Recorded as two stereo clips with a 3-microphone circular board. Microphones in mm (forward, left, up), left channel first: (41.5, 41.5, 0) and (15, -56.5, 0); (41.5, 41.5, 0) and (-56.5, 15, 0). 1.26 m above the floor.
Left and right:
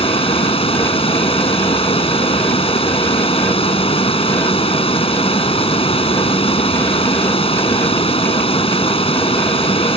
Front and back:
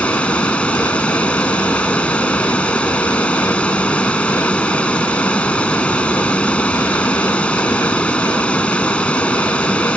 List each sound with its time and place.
0.0 s running water: 95° left